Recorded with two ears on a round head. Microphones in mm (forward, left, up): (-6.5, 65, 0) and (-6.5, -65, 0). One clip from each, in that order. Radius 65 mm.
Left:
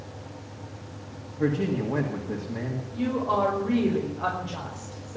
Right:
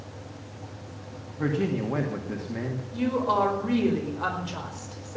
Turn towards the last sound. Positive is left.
turn(degrees=-75)  # may be behind; listen again after turning